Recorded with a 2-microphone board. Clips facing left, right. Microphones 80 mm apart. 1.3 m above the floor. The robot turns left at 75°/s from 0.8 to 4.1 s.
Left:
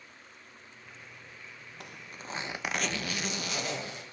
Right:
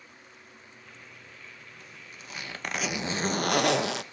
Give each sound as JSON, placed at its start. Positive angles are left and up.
{"t": 1.8, "sound": "a zipper", "azimuth_deg": 70, "distance_m": 1.0}